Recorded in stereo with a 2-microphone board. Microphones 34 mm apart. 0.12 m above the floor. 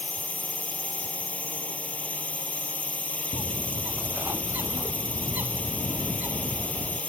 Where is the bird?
65° right (ahead or behind).